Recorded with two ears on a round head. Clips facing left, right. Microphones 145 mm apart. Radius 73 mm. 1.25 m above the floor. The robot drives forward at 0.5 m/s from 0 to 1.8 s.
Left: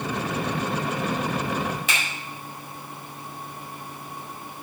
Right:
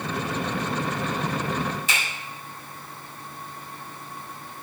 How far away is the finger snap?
About 4.5 m.